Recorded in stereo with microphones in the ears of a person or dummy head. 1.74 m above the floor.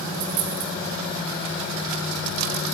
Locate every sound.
0.1 s a dropped coin: 60° right (ahead or behind), 2.5 m